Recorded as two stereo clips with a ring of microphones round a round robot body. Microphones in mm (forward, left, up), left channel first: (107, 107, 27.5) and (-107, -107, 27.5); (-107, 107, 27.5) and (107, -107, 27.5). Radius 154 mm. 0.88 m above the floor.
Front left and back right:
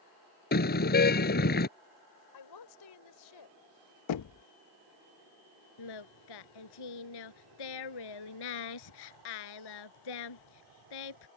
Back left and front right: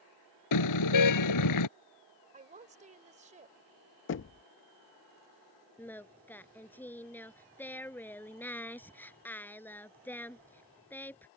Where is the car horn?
105° left.